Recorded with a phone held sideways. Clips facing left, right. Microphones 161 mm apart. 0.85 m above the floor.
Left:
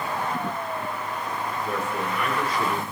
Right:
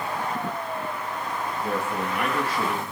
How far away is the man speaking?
About 5 m.